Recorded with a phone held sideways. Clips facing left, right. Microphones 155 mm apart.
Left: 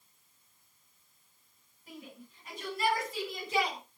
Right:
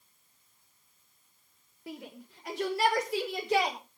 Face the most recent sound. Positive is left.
turn(degrees=-75)  # may be behind; listen again after turning